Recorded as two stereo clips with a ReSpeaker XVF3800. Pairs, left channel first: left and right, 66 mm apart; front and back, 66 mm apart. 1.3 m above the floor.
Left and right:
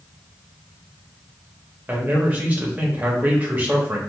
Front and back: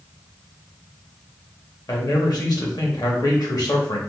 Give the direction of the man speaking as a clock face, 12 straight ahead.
1 o'clock.